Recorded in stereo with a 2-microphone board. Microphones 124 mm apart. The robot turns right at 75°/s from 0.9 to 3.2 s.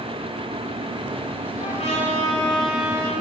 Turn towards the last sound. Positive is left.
turn(degrees=-135)